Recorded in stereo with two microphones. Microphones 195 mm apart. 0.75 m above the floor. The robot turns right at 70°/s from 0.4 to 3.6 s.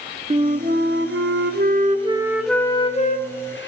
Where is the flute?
145° right, 0.7 m; by 3.7 s 80° left, 0.7 m.